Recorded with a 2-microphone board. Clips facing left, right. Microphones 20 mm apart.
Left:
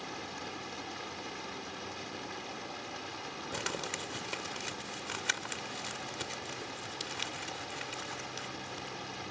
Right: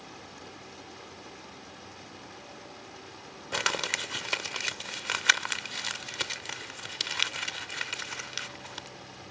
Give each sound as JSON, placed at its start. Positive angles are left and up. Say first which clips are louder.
{"t": 0.0, "sound": "running water", "louder": "left 5 dB", "side_deg": 30}
{"t": 3.5, "sound": "crumpling", "louder": "right 9 dB", "side_deg": -45}